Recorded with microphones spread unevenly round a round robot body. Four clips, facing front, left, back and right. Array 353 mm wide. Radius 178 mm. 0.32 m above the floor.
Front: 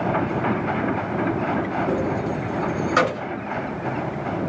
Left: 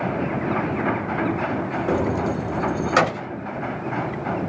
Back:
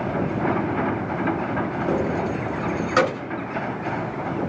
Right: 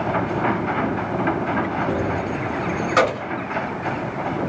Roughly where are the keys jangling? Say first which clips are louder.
Left 1 dB, even; left.